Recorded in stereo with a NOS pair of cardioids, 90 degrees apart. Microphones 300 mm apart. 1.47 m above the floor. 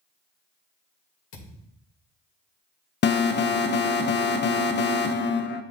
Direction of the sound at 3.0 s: 35° left.